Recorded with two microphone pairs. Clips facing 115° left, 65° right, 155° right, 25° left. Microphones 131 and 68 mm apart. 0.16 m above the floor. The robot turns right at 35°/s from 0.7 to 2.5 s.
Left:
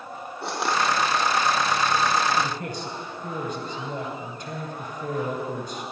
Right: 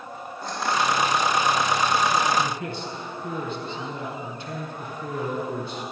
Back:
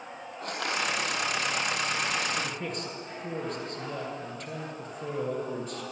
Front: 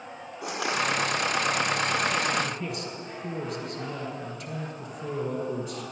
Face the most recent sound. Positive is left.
turn(degrees=155)